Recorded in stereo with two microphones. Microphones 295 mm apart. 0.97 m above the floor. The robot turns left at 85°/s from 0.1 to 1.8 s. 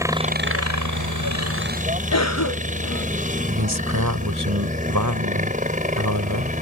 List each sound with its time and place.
0.0 s a helicopter: 10° right; by 6.6 s 155° right
2.1 s a cough: 55° left (ahead or behind)
3.5 s a man speaking: 75° right (ahead or behind)